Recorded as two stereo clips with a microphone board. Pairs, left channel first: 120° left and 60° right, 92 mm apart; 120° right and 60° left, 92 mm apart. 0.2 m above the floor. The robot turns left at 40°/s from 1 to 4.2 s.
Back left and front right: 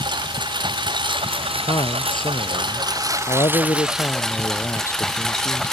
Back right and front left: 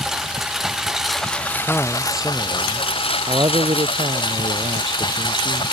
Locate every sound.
0.0 s a lawn mower: 25° right; by 5.7 s 155° right
1.7 s a man speaking: 165° left; by 5.6 s 65° left